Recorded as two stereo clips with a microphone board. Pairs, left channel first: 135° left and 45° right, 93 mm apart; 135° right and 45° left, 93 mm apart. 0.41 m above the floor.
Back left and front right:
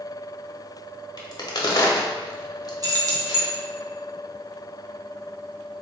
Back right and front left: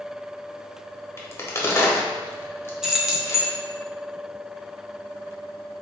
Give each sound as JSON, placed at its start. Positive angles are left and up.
{"t": 1.2, "sound": "a crack", "azimuth_deg": 170, "distance_m": 0.9}
{"t": 2.8, "sound": "keys jangling", "azimuth_deg": -35, "distance_m": 0.7}